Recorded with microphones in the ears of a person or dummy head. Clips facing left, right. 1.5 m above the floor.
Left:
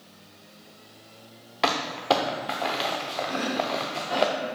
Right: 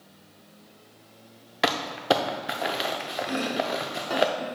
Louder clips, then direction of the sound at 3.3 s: Right 1 dB; 60° right (ahead or behind).